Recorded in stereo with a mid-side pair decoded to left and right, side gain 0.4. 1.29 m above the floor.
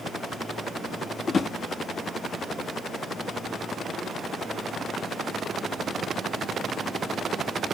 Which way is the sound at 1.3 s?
45° left.